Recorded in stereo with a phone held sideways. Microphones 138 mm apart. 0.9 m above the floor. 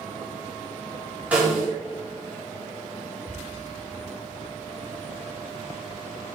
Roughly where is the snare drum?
Centre.